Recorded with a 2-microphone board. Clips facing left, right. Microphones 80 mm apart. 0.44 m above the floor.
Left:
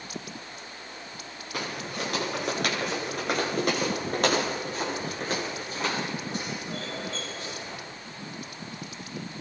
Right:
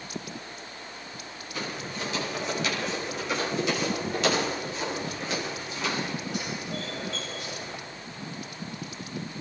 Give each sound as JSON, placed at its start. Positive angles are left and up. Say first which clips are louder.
{"t": 1.5, "sound": "footsteps", "louder": "left 1 dB", "side_deg": 60, "distance_m": 7.0}